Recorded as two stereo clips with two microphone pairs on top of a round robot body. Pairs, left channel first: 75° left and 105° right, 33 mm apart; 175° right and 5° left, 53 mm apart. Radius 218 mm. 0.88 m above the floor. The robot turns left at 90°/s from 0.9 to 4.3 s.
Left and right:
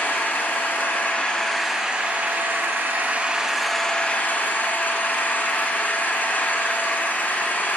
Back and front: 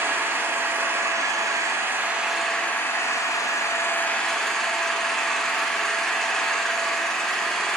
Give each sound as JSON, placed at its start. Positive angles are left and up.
{"t": 0.0, "sound": "an engine running", "azimuth_deg": 45, "distance_m": 1.4}